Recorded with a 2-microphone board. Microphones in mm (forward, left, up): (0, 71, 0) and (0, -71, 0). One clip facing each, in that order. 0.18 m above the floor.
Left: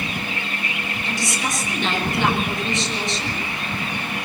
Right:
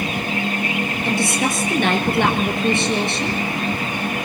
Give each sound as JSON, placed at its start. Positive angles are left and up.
{"t": 1.1, "sound": "a woman speaking", "side_deg": -55, "distance_m": 3.5}